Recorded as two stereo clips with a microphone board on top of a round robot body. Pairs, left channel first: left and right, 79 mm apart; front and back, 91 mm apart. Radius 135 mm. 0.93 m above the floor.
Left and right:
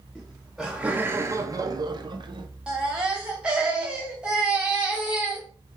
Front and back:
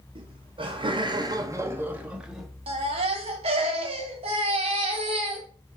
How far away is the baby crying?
About 0.7 m.